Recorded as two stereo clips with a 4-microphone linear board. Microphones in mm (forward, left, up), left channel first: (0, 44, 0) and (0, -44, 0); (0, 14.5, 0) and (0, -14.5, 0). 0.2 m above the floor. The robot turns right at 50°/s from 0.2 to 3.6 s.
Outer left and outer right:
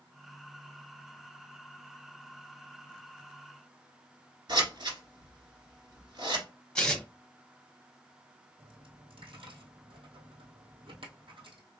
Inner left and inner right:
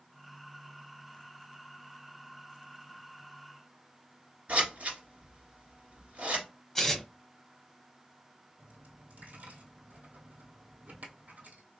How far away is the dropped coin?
About 1.6 m.